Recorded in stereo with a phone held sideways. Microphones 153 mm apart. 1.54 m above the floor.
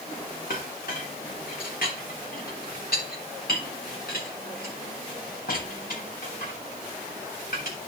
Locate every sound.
0.5 s a clink: 70° left (ahead or behind), 3 m